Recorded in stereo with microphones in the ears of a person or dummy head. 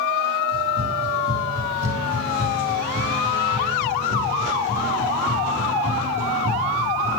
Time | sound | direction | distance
0.5 | running footsteps | 65° right (ahead or behind) | 8 m